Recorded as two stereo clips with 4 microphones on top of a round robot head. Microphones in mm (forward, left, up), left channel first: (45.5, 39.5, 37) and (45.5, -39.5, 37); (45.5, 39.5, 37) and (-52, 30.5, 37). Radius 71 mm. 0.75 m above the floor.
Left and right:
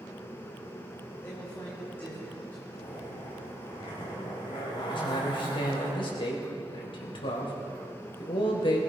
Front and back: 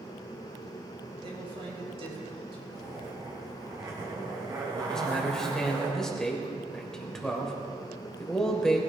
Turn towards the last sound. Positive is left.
turn(degrees=90)